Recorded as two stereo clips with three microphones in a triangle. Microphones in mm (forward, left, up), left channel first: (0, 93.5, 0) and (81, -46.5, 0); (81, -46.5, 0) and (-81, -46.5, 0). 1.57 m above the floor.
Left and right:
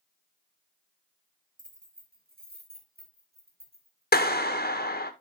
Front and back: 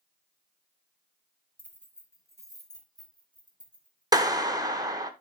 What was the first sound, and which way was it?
Keys jangling, 80° right.